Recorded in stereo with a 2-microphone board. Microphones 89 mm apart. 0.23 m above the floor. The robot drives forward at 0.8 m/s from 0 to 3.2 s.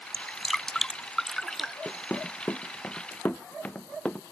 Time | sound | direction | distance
0.1 | dripping | 5° left (ahead or behind) | ?
1.9 | running footsteps | 20° left (ahead or behind) | ?